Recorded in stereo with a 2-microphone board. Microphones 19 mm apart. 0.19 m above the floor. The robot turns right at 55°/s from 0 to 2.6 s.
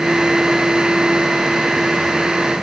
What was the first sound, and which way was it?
Only background noise.